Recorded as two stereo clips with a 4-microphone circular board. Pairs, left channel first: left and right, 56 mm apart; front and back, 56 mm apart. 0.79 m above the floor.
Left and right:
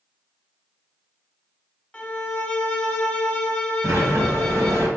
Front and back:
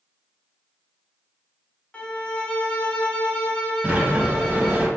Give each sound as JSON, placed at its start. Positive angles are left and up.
{"t": 1.9, "sound": "a violin", "azimuth_deg": 45, "distance_m": 0.7}
{"t": 3.8, "sound": "a sliding door", "azimuth_deg": -110, "distance_m": 1.5}